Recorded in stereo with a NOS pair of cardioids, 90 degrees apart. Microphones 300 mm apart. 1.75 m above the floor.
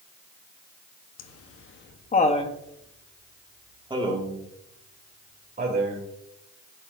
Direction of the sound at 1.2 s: 60° left.